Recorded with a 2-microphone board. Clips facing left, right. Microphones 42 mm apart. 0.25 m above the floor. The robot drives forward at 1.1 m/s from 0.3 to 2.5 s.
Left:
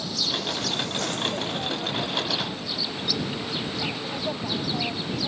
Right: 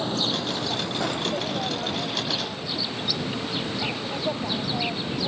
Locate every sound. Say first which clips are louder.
0.0 s an insect: right 3 dB; 35° right (ahead or behind); by 5.3 s 10° right (ahead or behind)